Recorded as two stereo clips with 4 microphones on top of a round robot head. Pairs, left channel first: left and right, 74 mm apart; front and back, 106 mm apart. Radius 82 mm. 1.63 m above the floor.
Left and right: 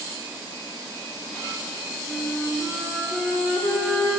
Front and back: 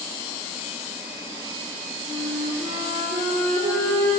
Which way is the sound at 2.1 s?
Straight behind.